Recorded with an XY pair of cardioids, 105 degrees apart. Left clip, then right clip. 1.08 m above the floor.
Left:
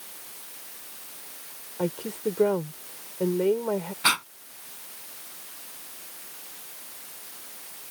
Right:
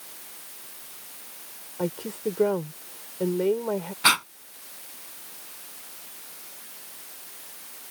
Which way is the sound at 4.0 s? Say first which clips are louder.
Right 3 dB; 20° right.